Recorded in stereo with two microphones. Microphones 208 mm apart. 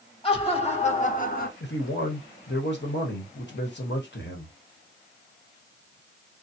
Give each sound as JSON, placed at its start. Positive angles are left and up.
{"t": 0.2, "sound": "laughter", "side_deg": 25, "distance_m": 1.5}
{"t": 1.6, "sound": "a man speaking", "side_deg": 60, "distance_m": 1.2}